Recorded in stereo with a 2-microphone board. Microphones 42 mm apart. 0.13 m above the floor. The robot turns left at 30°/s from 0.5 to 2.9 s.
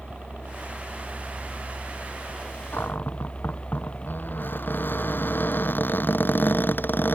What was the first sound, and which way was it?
A helicopter, 140° right.